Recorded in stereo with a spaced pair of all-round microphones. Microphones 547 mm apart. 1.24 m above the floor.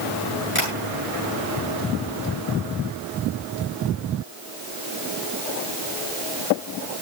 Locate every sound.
0.6 s tapping: 60° left (ahead or behind), 8.5 m